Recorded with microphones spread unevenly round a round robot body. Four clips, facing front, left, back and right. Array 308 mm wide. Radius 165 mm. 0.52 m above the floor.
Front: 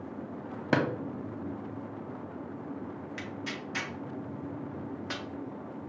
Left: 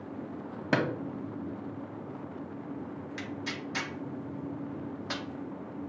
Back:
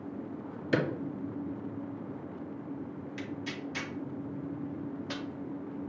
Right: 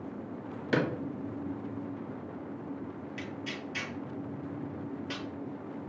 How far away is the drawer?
About 1.1 m.